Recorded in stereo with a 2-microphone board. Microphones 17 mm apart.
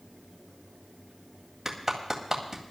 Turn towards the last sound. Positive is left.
turn(degrees=-25)  # may be behind; listen again after turning